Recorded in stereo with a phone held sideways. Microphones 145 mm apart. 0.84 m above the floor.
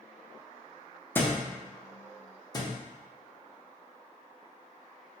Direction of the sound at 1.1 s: 15° left (ahead or behind).